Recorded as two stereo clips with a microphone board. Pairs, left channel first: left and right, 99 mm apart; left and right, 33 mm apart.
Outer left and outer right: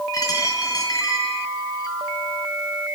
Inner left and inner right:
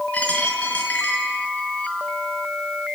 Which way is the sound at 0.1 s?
35° left (ahead or behind).